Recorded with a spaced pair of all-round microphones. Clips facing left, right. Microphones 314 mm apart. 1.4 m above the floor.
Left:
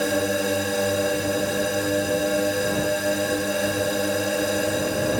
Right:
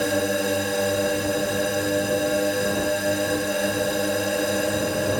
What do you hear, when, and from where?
0.0 s a drone: centre (ahead or behind)